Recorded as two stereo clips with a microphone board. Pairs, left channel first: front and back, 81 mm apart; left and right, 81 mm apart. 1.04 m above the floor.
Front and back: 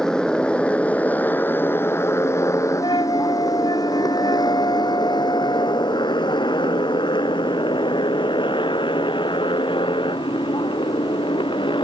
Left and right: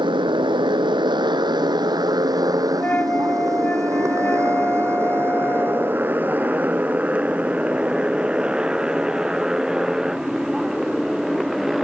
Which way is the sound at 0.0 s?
80° right.